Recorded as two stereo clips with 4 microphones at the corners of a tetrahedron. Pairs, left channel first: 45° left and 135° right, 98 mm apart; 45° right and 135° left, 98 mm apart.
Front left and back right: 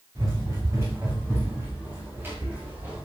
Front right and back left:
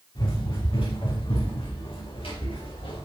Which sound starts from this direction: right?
Running footsteps, at 0.1 s.